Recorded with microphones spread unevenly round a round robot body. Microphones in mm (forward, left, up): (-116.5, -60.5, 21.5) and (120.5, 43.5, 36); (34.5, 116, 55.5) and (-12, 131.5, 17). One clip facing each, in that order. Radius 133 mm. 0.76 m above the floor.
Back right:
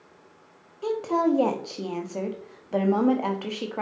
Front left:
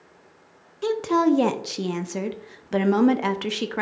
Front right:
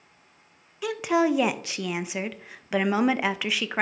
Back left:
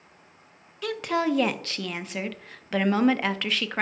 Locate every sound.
0.8 s a woman speaking: 80° left, 0.8 m